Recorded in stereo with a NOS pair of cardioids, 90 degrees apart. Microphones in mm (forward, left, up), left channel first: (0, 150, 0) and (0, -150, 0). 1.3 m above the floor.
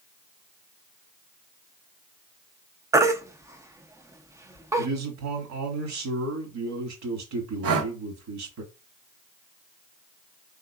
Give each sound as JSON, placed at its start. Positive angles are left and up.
{"t": 2.9, "sound": "a baby crying", "azimuth_deg": -10, "distance_m": 0.6}
{"t": 4.8, "sound": "a man speaking", "azimuth_deg": -65, "distance_m": 1.8}
{"t": 7.6, "sound": "breathing", "azimuth_deg": -50, "distance_m": 0.9}